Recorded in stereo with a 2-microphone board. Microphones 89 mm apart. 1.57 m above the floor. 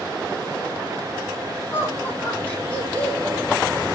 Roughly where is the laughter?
Left.